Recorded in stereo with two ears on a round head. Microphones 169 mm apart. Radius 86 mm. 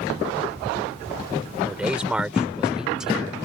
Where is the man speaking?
5° right (ahead or behind).